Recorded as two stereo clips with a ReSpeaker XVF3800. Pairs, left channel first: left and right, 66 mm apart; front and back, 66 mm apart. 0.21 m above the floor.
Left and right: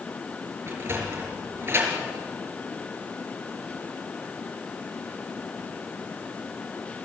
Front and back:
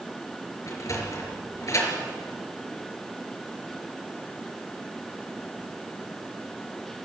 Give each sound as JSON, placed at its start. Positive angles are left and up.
{"t": 0.7, "sound": "a sliding door", "azimuth_deg": -40, "distance_m": 4.0}